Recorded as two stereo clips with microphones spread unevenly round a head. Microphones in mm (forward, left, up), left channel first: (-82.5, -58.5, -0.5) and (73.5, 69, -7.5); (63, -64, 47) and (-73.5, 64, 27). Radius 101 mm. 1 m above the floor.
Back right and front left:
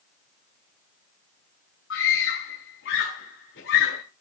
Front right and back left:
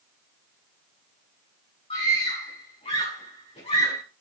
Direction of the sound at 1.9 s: 105° right.